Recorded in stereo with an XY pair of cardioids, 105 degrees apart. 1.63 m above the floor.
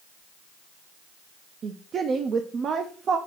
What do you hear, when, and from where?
1.6 s a woman speaking: 55° right, 0.5 m